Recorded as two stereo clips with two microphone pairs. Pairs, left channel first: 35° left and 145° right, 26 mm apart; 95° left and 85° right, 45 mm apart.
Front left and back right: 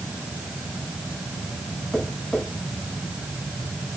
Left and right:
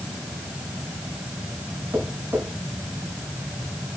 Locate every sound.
1.9 s tapping: 55° right, 7.5 m